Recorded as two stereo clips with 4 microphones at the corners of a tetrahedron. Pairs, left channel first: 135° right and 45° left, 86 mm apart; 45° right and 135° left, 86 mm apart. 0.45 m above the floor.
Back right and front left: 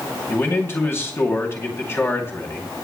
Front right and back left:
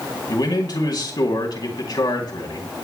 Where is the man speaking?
75° right, 3.5 m.